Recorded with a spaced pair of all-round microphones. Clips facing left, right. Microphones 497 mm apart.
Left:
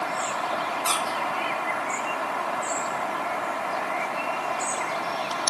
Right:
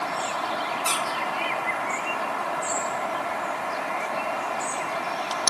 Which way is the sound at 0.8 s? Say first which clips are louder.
Even; 55° right (ahead or behind).